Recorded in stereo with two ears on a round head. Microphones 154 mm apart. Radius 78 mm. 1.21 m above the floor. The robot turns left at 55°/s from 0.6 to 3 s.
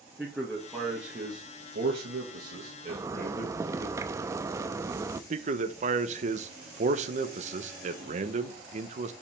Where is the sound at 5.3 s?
45° right (ahead or behind), 0.9 m.